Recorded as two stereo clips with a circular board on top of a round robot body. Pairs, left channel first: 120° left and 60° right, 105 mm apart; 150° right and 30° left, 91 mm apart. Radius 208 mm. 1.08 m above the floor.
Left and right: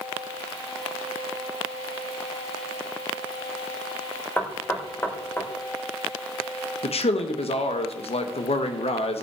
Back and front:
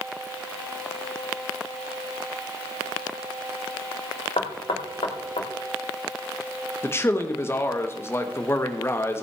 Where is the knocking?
170° right, 1.9 m.